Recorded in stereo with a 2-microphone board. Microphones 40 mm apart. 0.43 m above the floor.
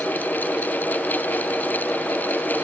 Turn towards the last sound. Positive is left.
No sound to turn to.